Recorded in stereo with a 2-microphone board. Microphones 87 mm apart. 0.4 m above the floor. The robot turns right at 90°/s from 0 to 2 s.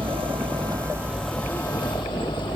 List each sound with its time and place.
0.0 s a vehicle: 115° right; by 2.6 s 65° left